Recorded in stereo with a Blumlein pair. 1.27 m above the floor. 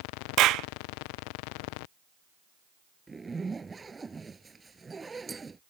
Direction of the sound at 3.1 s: 10° right.